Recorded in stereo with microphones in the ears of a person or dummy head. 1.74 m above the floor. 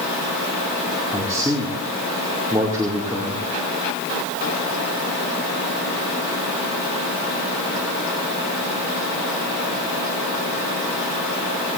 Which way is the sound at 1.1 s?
15° right (ahead or behind).